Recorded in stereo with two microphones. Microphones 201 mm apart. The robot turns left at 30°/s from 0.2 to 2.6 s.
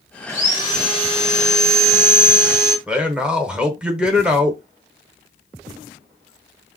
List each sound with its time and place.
0.3 s sawing: 160° left, 1.4 m; by 2.8 s 90° left, 1.4 m
2.9 s a man speaking: 5° right (ahead or behind), 0.8 m